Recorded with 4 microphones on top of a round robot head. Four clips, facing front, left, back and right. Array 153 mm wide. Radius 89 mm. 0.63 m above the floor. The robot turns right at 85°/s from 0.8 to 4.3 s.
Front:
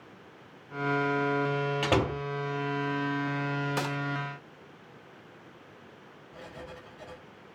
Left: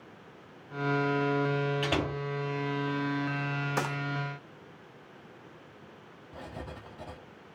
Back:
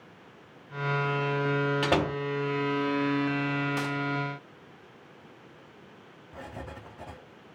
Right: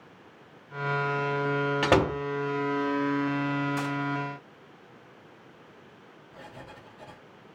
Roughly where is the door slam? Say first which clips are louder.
Right 8 dB, back 1 dB; right.